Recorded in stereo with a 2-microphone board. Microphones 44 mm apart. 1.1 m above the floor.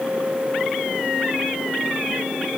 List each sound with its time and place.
Only background noise.